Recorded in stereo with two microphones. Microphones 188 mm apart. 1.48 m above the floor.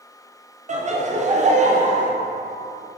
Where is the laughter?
40° right (ahead or behind), 0.5 m.